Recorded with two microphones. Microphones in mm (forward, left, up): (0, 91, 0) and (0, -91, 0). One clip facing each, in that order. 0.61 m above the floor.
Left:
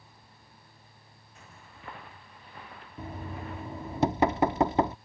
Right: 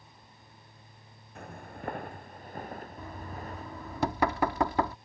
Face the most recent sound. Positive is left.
turn(degrees=20)  # may be behind; listen again after turning